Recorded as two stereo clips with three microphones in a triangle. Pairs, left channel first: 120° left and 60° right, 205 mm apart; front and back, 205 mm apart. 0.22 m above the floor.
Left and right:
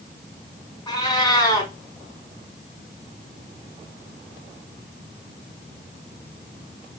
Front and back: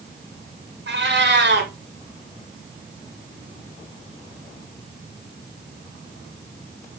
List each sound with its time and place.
0.9 s a cat meowing: 175° right, 0.8 m